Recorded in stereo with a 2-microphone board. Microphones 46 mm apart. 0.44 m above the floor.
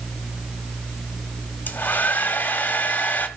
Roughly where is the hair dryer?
Left.